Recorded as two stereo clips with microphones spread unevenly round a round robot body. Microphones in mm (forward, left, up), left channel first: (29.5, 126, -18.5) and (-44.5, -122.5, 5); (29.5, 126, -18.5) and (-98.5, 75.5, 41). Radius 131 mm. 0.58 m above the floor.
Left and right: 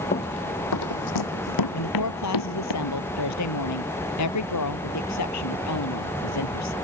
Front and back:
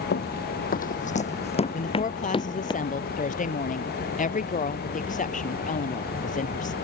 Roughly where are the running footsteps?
Ahead.